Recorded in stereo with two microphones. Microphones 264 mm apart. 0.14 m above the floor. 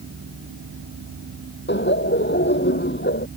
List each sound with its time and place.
1.7 s laughter: 45° left (ahead or behind)